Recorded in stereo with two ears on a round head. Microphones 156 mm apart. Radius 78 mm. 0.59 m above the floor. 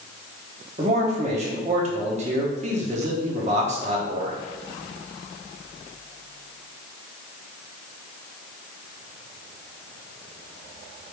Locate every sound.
0.8 s a man speaking: 40° right (ahead or behind), 0.9 m